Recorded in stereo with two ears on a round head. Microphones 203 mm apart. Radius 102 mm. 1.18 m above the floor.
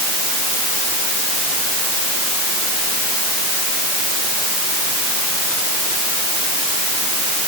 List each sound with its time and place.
Only background noise.